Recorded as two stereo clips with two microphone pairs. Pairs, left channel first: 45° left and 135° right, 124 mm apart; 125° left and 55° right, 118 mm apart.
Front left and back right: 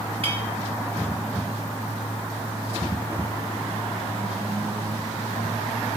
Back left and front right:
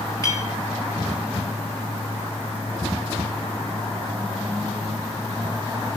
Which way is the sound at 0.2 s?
175° right.